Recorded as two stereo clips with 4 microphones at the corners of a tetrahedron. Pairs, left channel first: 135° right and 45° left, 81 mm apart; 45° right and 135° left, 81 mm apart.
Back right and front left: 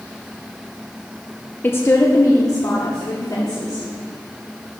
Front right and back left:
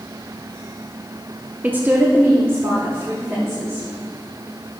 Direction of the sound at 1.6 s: 175° right.